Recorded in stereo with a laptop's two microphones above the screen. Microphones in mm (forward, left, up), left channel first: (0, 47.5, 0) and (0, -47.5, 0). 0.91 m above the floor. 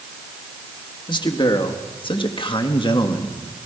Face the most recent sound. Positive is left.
turn(degrees=50)  # may be behind; listen again after turning